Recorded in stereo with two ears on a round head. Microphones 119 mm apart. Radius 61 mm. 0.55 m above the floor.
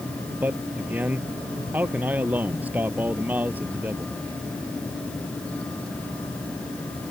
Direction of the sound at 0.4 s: 10° right (ahead or behind).